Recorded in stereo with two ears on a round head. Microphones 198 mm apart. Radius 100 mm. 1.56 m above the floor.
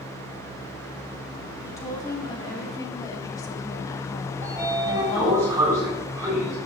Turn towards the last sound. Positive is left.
turn(degrees=-10)  # may be behind; listen again after turning